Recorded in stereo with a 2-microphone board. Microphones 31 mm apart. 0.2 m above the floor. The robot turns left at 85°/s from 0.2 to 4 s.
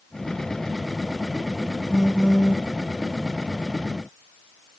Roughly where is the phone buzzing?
Right.